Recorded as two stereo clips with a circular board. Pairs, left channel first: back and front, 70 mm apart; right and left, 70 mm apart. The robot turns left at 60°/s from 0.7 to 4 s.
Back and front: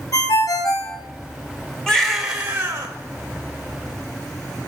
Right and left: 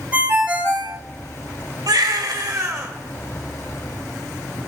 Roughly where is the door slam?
No door slam in this recording.